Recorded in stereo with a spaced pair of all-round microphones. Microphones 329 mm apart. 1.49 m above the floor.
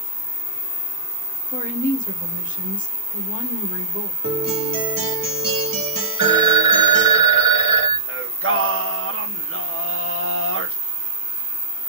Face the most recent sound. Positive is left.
turn(degrees=-40)  # may be behind; listen again after turning